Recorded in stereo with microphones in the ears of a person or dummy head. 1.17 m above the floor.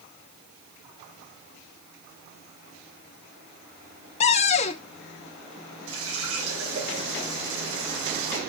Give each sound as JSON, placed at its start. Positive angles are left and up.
{"t": 4.2, "sound": "a cupboard door", "side_deg": 40, "distance_m": 0.6}
{"t": 5.9, "sound": "a running tap", "side_deg": -80, "distance_m": 7.0}